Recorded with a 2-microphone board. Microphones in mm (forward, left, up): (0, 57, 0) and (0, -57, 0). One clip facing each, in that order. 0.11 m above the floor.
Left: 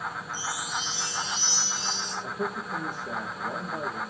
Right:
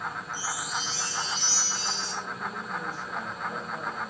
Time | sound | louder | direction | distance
0.3 | a chime | even | 20° left (ahead or behind) | 3 m
2.2 | a man speaking | left 4 dB | 70° left (ahead or behind) | 7.5 m